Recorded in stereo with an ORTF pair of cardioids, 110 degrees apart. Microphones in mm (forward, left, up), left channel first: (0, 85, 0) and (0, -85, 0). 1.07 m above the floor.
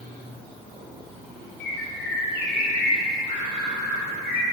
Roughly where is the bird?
Left.